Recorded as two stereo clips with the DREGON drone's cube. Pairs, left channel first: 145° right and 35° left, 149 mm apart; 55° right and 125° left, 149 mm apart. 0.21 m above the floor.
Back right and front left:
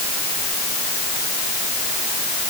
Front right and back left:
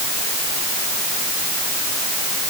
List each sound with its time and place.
Only background noise.